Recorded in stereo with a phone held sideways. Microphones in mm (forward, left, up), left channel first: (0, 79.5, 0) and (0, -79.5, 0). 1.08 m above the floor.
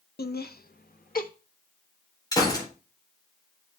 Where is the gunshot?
25° left (ahead or behind), 4 m.